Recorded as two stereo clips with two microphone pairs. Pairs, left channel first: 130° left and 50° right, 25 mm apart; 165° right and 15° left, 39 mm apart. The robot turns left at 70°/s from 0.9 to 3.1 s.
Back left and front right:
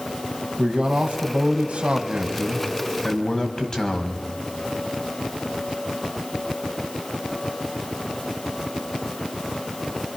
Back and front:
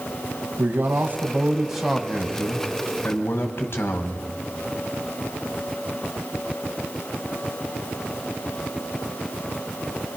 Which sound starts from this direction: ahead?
A man speaking, at 0.6 s.